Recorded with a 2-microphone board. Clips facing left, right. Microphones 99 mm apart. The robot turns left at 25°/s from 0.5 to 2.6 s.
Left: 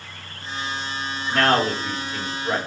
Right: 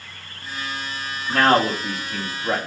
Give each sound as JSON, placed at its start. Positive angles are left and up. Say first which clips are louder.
{"t": 1.3, "sound": "a man speaking", "louder": "right 2 dB", "side_deg": -70, "distance_m": 3.0}